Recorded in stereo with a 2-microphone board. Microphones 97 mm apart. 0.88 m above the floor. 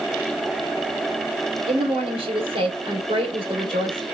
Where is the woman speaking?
75° right (ahead or behind), 2 m.